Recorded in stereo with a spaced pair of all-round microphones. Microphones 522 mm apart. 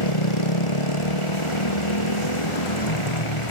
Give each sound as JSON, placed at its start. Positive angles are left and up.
{"t": 0.0, "sound": "a motorcycle", "side_deg": 70}